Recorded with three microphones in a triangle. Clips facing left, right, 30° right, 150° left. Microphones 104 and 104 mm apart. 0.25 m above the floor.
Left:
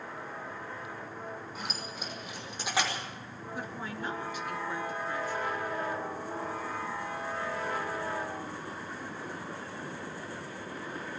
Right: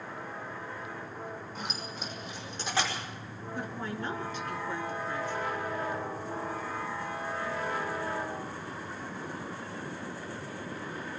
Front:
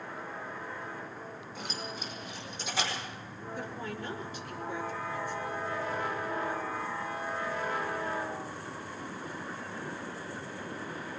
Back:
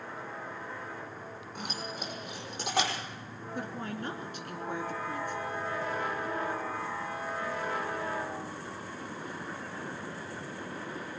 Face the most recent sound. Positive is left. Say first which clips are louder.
# right 2 dB, back 2 dB
turn(degrees=170)